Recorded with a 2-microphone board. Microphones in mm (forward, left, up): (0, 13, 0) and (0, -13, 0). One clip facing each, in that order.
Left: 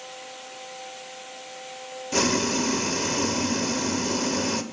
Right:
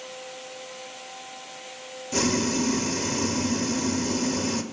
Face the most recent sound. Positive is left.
turn(degrees=20)  # may be behind; listen again after turning